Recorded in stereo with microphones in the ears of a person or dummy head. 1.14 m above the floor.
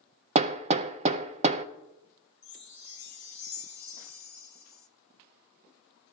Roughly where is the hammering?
Right.